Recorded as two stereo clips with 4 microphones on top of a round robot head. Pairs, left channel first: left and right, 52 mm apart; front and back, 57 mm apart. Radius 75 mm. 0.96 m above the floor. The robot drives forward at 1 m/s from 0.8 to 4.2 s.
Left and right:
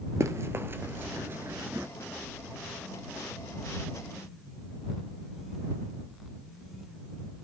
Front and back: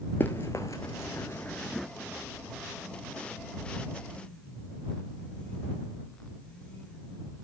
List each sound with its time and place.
0.2 s running footsteps: 65° right, 1.4 m; by 1.9 s 95° right, 0.9 m